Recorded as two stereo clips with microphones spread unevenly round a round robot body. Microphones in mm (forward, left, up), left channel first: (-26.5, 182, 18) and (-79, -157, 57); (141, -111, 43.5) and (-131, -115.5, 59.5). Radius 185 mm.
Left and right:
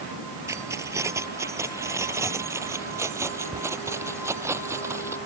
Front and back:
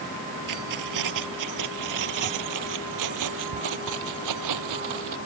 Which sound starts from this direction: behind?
Keys jangling, at 0.5 s.